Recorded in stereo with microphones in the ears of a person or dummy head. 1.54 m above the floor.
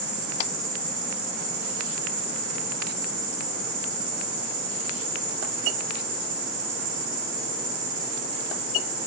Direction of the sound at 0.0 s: 55° right (ahead or behind).